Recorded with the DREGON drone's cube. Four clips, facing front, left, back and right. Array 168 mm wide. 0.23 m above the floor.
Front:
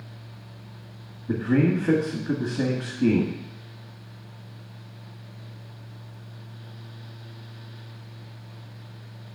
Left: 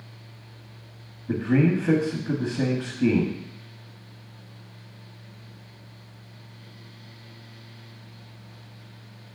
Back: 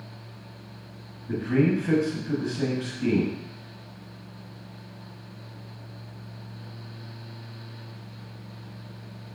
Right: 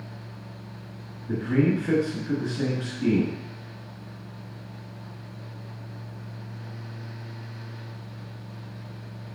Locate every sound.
1.3 s a man speaking: 40° left, 1.6 m